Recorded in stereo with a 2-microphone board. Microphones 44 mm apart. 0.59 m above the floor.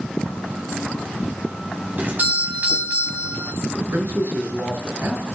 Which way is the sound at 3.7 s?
70° right (ahead or behind).